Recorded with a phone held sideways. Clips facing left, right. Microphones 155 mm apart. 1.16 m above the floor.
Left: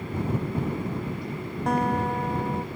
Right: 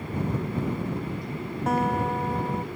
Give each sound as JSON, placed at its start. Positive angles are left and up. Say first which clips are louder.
{"t": 1.7, "sound": "a guitar", "louder": "even", "side_deg": 0}